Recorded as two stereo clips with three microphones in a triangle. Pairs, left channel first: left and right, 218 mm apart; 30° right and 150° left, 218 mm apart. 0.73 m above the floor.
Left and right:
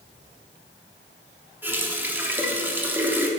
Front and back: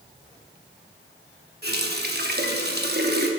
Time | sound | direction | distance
1.6 | a running tap | 170° right | 0.9 m